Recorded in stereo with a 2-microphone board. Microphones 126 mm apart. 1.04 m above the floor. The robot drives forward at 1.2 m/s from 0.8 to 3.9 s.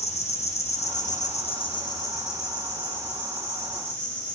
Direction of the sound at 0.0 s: 60° left (ahead or behind).